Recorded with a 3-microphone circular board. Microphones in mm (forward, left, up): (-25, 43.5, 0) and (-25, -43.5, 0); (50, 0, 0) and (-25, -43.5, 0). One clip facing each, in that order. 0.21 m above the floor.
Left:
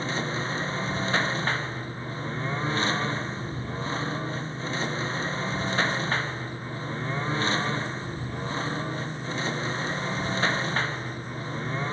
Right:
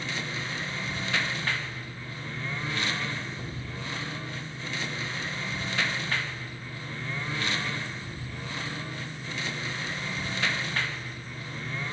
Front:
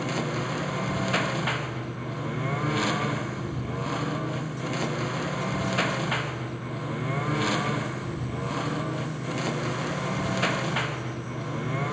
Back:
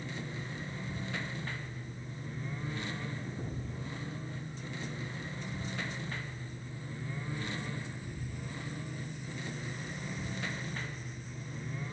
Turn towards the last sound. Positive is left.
turn(degrees=30)